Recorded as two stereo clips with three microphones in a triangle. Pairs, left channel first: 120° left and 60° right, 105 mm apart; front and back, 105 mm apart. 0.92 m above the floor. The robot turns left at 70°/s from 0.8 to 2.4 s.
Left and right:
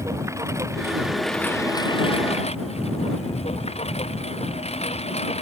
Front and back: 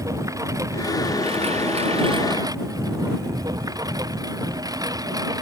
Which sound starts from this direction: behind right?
A lawn mower, at 0.0 s.